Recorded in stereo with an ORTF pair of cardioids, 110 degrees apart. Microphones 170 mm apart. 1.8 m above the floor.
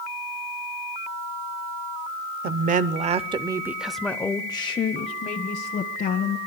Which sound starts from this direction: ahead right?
A woman speaking, at 2.4 s.